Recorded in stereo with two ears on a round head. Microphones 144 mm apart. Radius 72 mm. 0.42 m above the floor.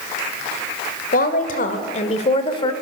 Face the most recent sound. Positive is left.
turn(degrees=25)  # may be behind; listen again after turning